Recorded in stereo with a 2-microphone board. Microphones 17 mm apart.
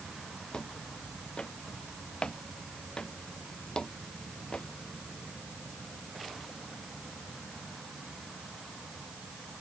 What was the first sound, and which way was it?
Footsteps, 80° left.